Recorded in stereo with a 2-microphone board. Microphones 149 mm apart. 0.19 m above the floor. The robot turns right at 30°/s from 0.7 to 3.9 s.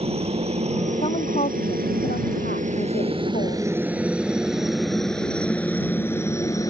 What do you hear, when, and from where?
0.0 s a helicopter: 40° right (ahead or behind); by 6.7 s 20° left (ahead or behind)
1.0 s a woman speaking: 40° left; by 3.6 s 120° left